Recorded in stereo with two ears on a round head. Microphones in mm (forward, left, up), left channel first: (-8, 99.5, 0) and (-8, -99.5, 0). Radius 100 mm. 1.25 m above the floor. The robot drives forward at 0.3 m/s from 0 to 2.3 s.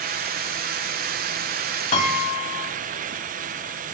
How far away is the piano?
About 0.7 m.